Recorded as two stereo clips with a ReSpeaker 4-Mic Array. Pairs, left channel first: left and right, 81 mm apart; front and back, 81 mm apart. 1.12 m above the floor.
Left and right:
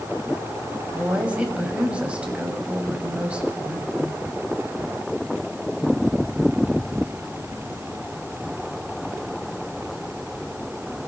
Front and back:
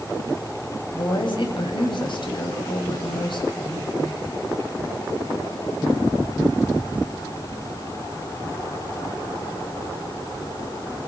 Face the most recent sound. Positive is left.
turn(degrees=-15)